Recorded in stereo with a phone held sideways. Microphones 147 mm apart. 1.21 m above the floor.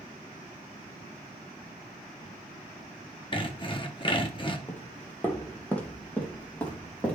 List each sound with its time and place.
3.3 s sawing: 35° left (ahead or behind), 1.0 m
4.7 s footsteps: 15° left (ahead or behind), 1.5 m; by 7.2 s 10° left (ahead or behind), 4 m